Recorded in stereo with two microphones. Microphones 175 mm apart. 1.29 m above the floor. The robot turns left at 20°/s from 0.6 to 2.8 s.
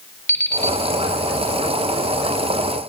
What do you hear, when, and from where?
0.3 s an alarm clock: 15° left (ahead or behind), 0.7 m